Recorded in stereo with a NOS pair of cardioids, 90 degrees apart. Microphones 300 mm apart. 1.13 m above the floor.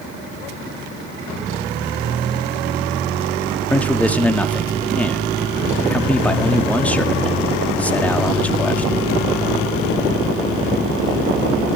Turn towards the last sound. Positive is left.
turn(degrees=5)